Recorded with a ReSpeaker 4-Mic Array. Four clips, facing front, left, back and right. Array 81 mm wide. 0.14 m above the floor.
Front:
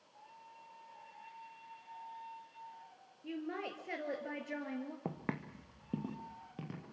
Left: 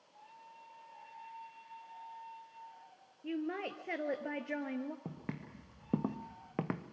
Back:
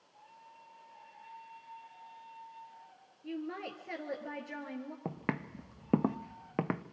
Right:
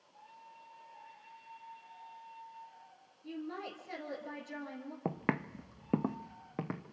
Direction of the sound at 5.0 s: 90° right.